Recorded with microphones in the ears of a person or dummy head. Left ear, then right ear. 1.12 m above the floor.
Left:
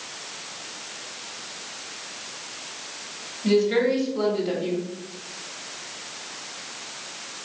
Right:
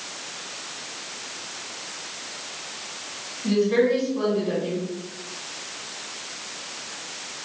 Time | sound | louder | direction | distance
3.4 | a woman speaking | even | 65° left (ahead or behind) | 2.5 m